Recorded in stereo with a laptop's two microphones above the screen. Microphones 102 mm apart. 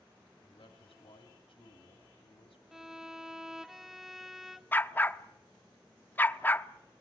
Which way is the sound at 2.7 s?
5° right (ahead or behind).